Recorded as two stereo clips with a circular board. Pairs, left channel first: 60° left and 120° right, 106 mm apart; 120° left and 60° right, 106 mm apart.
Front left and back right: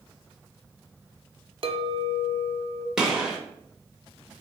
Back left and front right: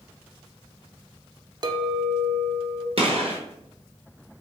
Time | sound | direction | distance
1.6 | a clink | 100° right | 0.5 m
3.0 | a gunshot | 35° right | 1.0 m